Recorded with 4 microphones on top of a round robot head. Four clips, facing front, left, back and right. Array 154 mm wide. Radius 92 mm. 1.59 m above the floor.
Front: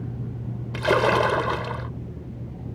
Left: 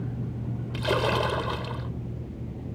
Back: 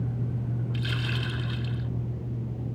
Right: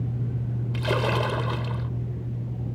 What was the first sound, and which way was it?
A splash, 5° left.